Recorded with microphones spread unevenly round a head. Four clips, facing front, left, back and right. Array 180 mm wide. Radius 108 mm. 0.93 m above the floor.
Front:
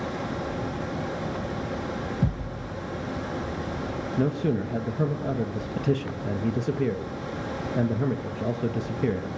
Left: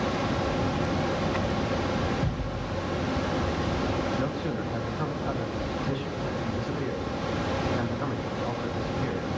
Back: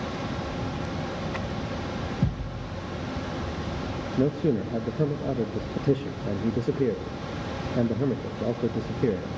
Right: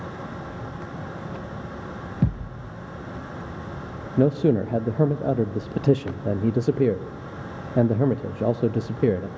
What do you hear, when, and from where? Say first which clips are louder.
0.0 s a fan: left 8 dB, front 1 dB; 80° left, 1.2 m
2.2 s a thud: right 3 dB, front 1 dB; 105° right, 4 m
4.2 s a man speaking: right 10 dB, back 2 dB; 100° right, 0.8 m